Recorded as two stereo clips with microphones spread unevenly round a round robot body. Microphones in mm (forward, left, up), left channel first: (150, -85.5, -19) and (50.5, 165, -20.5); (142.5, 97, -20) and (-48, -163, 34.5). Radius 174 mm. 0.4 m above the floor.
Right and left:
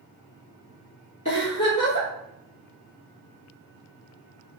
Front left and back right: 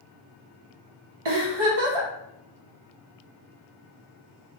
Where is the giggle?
140° right, 0.8 m.